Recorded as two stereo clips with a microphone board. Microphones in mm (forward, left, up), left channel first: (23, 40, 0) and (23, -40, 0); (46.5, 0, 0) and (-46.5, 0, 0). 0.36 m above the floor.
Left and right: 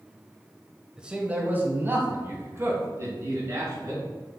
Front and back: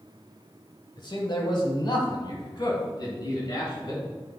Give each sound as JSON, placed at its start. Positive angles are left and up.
{"t": 1.0, "sound": "a man speaking", "azimuth_deg": -10, "distance_m": 1.3}